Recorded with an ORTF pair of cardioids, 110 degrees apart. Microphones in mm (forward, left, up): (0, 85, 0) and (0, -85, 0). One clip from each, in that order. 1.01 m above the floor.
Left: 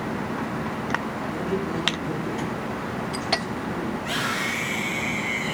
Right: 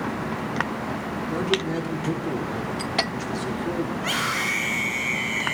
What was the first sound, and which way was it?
A man speaking, 70° right.